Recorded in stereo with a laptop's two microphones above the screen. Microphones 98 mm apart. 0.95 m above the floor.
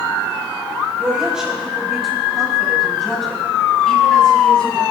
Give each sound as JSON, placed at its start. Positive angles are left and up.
{"t": 1.0, "sound": "a woman speaking", "side_deg": -10, "distance_m": 5.5}